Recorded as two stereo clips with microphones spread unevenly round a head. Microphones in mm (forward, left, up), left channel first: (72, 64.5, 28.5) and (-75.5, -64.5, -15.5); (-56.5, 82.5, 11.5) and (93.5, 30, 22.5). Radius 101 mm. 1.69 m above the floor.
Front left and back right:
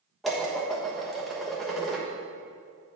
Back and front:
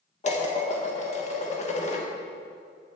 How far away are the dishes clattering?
About 1.2 m.